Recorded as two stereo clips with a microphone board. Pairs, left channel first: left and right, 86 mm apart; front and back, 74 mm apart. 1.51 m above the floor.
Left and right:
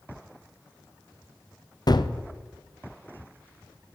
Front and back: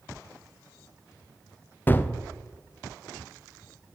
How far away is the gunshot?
About 0.6 m.